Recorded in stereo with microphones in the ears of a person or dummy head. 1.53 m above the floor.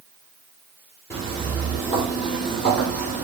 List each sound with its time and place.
1.1 s footsteps: 10° left (ahead or behind), 1.6 m; by 3.2 s 40° left (ahead or behind), 1.9 m